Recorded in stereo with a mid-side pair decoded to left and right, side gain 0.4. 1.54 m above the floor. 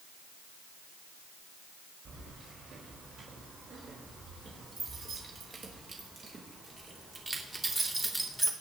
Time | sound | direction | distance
2.0 | keys jangling | 65° right | 4.5 m